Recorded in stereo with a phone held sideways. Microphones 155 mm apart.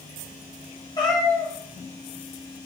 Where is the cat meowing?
25° left (ahead or behind), 1.2 m.